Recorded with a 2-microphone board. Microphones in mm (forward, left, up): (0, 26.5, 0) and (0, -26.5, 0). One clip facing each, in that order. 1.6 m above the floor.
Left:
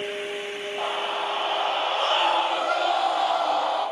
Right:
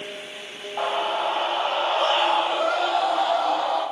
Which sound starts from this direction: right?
A scream, at 0.8 s.